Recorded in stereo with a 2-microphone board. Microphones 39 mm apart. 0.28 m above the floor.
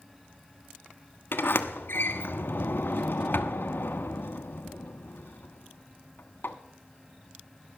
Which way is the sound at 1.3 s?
65° left (ahead or behind).